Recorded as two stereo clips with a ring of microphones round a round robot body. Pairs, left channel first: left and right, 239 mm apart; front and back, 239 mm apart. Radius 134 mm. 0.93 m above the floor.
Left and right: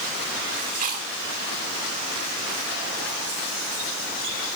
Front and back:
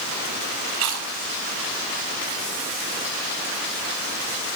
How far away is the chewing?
About 3 m.